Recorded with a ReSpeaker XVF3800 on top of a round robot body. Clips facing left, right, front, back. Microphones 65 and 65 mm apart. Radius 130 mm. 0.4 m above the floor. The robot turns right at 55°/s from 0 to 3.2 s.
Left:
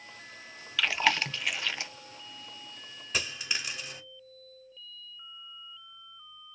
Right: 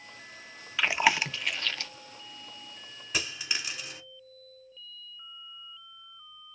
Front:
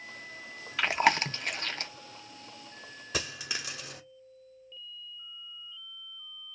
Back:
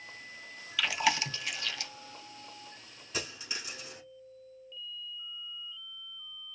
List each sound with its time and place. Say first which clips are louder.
0.8 s chewing: right 2 dB, front 4 dB; 35° right, 0.6 m; by 1.9 s 30° left, 0.6 m
3.1 s a dropped coin: even, front 3 dB; 5° right, 0.7 m; by 4.0 s straight ahead, 0.7 m